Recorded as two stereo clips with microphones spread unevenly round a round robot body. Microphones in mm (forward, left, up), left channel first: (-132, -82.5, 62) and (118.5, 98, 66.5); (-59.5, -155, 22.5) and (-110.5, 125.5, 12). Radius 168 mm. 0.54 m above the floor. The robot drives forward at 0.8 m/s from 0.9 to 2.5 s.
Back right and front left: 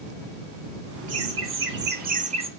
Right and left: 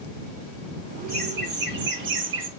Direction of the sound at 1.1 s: 50° left.